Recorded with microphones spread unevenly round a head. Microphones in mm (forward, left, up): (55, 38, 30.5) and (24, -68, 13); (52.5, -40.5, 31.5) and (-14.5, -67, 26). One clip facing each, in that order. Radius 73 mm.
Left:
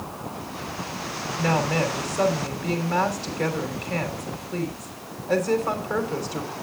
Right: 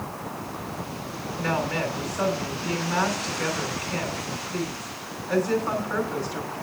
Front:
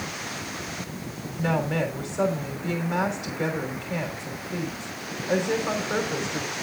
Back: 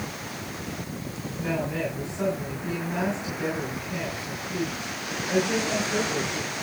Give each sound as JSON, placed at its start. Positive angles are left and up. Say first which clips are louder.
{"t": 1.4, "sound": "a woman speaking", "louder": "left 3 dB, front 3 dB", "azimuth_deg": 30, "distance_m": 3.0}